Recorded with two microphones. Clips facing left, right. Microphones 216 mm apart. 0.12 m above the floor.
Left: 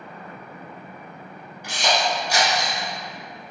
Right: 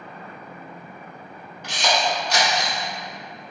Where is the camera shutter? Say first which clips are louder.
Even; 10° left (ahead or behind), 1.4 m.